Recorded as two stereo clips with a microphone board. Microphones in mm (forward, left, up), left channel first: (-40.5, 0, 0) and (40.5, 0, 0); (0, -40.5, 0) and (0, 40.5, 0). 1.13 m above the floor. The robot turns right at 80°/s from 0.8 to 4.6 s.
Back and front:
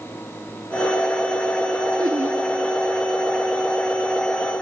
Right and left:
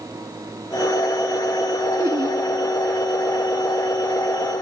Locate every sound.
2.0 s laughter: 25° left, 3 m; by 2.4 s 60° left, 3 m